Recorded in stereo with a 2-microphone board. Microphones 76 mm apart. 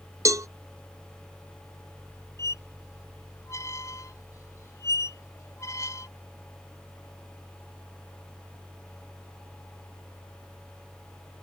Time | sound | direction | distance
0.2 | a cowbell | 40° right (ahead or behind) | ?
2.4 | a squeak | 40° left (ahead or behind) | ?